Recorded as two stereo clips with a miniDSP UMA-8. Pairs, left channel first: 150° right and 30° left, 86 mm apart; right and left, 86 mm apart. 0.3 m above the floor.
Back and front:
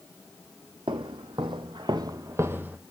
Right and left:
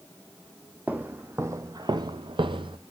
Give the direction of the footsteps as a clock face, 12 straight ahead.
11 o'clock.